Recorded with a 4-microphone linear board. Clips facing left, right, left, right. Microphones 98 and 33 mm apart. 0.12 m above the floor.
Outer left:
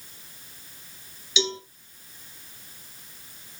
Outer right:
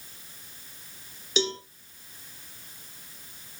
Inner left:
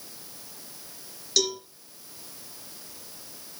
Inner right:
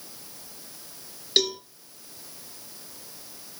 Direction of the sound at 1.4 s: 40° right (ahead or behind).